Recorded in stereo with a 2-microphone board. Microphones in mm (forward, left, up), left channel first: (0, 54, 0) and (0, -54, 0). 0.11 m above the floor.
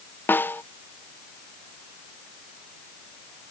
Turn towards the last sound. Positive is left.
turn(degrees=20)  # may be behind; listen again after turning